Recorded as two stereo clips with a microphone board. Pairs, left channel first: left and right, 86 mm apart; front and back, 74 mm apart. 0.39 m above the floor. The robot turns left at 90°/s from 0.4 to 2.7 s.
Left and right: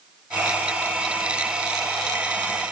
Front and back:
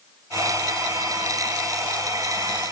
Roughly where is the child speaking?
I don't hear a child speaking.